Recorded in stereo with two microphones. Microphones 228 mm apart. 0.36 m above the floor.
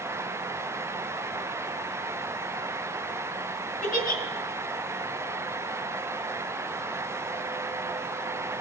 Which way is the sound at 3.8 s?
40° left (ahead or behind).